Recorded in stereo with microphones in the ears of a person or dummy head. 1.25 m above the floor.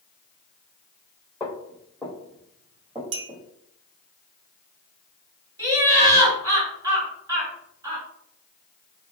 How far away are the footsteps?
About 1.7 m.